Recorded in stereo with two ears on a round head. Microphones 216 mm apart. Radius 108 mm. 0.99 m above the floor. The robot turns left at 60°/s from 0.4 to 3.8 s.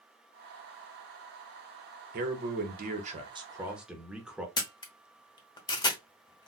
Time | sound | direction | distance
2.1 | a man speaking | 75° right | 0.8 m
4.6 | a camera shutter | 20° left (ahead or behind) | 0.7 m